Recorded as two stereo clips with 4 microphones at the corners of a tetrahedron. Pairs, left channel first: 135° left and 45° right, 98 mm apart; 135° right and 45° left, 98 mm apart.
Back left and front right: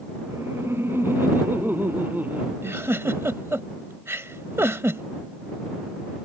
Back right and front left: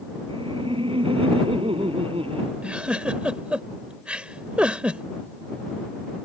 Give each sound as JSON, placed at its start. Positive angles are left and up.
{"t": 0.3, "sound": "laughter", "azimuth_deg": 20}
{"t": 2.6, "sound": "a giggle", "azimuth_deg": -20}